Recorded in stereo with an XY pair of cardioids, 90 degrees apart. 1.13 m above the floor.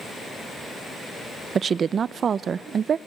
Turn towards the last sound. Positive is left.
turn(degrees=-55)